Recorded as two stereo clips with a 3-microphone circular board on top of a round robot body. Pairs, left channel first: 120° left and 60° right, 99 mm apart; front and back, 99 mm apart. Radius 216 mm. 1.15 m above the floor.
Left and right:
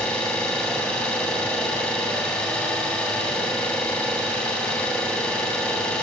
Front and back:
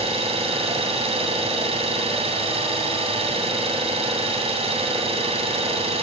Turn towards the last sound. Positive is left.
turn(degrees=-155)